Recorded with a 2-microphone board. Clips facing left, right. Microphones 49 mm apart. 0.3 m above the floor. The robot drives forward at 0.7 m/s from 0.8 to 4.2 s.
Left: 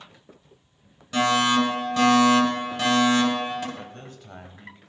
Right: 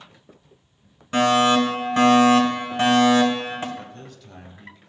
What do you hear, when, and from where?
1.1 s a fire alarm: 30° right (ahead or behind), 2 m; by 3.6 s 25° right (ahead or behind), 2.5 m
3.8 s a man speaking: 35° left (ahead or behind), 1.1 m